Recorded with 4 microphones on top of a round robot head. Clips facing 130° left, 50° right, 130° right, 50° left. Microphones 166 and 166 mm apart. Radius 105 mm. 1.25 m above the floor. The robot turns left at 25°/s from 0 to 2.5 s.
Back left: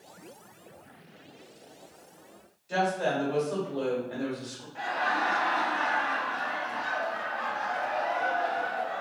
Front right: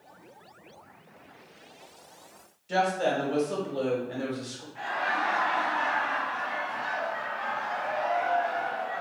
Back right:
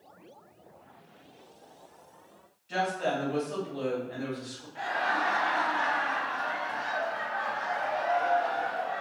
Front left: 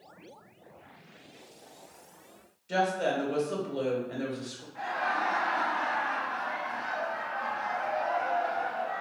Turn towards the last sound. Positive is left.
turn(degrees=175)